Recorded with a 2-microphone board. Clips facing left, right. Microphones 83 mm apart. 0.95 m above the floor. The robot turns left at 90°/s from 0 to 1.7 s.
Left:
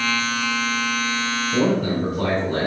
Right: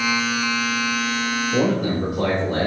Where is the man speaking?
5° left (ahead or behind), 3.5 m; by 2.7 s 10° right (ahead or behind), 3.5 m.